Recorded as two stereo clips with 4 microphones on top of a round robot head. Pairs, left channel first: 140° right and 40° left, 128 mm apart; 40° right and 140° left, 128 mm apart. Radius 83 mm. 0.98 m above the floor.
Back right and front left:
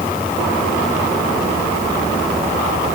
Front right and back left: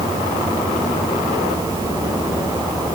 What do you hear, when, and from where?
Only background noise.